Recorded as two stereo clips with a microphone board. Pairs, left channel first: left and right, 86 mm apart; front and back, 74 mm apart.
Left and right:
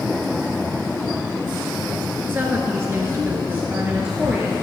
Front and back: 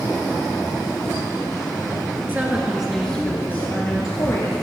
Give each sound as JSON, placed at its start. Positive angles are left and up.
{"t": 2.3, "sound": "a woman speaking", "azimuth_deg": -135, "distance_m": 1.8}